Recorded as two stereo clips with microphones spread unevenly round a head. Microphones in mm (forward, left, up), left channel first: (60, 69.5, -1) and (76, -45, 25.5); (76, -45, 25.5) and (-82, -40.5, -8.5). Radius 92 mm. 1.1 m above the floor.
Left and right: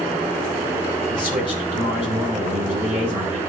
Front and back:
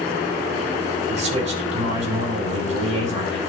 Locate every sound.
1.1 s a man speaking: 135° right, 6.5 m